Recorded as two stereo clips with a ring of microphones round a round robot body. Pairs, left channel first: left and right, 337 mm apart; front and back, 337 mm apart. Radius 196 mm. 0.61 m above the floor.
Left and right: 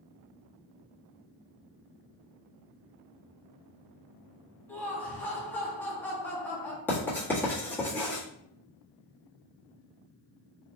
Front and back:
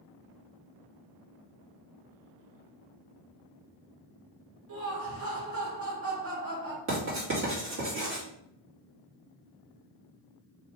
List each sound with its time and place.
4.7 s laughter: 170° left, 1.2 m
6.9 s writing: 170° left, 1.4 m